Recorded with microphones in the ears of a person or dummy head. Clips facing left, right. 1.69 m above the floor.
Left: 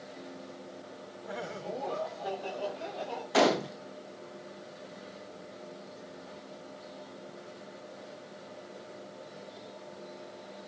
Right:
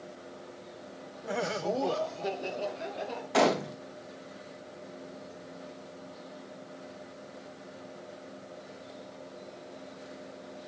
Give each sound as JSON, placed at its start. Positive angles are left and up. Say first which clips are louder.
{"t": 1.2, "sound": "laughter", "louder": "right 7 dB", "side_deg": -40, "distance_m": 0.6}
{"t": 3.3, "sound": "a gunshot", "louder": "even", "side_deg": 5, "distance_m": 0.7}